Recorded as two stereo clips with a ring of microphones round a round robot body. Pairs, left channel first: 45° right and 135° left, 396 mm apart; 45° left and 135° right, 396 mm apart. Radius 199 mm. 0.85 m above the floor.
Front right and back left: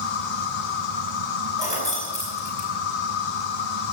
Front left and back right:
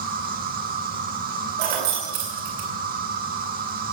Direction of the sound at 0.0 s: 65° right.